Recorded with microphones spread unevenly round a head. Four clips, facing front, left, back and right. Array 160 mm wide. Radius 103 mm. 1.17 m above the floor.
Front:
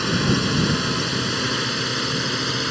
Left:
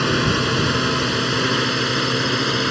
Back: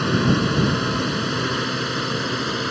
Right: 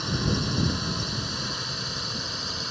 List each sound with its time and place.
0.0 s a drone: 115° left; by 2.7 s 110° left